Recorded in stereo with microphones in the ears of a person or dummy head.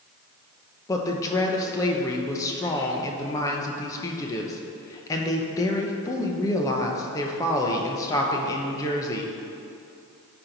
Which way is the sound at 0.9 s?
15° left (ahead or behind).